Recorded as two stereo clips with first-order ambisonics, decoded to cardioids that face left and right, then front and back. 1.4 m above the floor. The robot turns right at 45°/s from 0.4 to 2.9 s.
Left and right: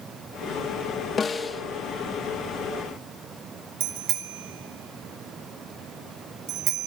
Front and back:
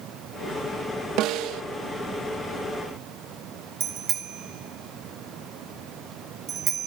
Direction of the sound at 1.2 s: 155° left.